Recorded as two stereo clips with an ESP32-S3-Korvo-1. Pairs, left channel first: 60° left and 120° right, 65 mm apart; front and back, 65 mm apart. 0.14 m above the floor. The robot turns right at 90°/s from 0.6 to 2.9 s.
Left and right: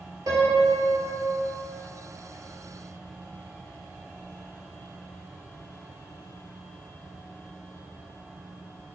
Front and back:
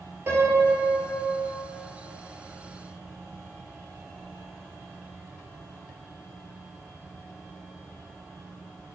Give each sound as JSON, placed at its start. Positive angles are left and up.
{"t": 0.3, "sound": "a piano", "azimuth_deg": -130, "distance_m": 0.9}